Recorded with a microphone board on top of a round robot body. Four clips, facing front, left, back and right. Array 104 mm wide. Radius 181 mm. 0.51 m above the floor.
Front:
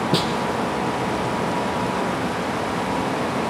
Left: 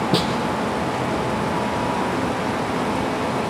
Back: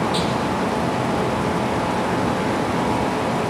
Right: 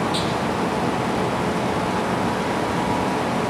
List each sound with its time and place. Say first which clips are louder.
0.1 s a snare drum: left 3 dB, even; 45° left, 4 m